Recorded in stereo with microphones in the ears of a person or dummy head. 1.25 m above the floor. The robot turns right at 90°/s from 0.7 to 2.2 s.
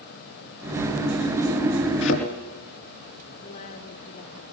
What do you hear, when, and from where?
2.0 s a thud: 70° left (ahead or behind), 4.5 m; by 2.2 s 80° left, 4.5 m
3.4 s a woman speaking: 50° left (ahead or behind), 3 m